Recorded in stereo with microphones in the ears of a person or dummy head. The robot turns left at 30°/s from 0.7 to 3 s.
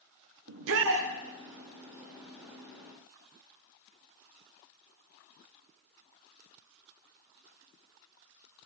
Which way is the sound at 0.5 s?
55° right (ahead or behind).